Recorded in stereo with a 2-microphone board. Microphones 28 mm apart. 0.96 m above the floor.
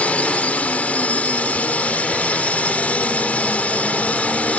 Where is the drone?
55° left (ahead or behind).